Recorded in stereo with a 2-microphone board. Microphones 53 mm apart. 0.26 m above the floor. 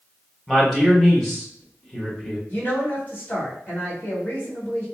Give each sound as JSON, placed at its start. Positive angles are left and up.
{"t": 0.5, "sound": "a man speaking", "side_deg": 5, "distance_m": 1.0}
{"t": 2.5, "sound": "a woman speaking", "side_deg": 35, "distance_m": 1.9}